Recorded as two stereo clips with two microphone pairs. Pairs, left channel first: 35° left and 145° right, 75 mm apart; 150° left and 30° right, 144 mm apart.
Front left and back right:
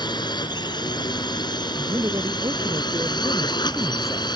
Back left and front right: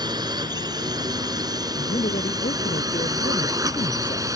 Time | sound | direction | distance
0.0 | a drone | 30° left | ?
1.8 | a man speaking | 175° left | ?